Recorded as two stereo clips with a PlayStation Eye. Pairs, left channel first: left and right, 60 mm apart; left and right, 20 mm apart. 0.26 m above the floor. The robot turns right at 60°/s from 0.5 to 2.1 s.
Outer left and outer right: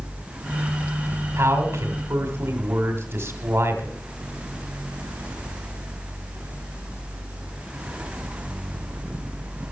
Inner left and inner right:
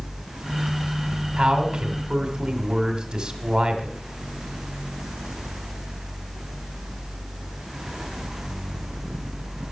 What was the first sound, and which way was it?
A man speaking, 105° right.